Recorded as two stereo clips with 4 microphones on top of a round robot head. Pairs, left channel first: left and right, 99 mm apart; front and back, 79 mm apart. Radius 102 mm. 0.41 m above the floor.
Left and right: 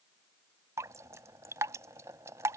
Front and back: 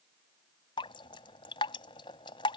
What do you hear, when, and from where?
0.8 s dripping: 25° right